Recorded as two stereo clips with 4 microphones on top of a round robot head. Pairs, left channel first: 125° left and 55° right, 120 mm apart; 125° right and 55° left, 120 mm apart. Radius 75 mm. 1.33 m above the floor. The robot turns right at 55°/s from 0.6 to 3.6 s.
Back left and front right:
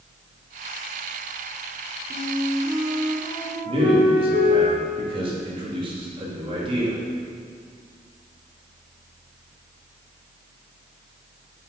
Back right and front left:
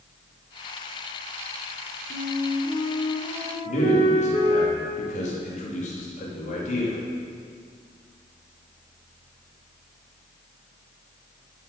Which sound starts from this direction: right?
A man speaking, at 3.6 s.